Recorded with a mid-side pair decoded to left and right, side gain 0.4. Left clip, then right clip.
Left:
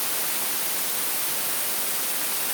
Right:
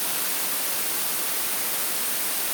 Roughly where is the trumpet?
I don't hear a trumpet.